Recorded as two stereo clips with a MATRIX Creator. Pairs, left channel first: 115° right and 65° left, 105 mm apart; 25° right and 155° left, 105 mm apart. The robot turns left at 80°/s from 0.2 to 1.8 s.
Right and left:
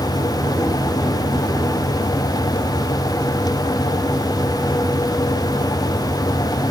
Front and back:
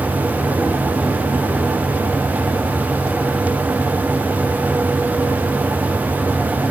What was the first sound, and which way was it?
Only background noise.